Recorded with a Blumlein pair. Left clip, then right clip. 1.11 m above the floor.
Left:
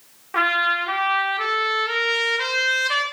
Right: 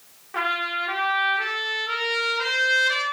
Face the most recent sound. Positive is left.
turn(degrees=20)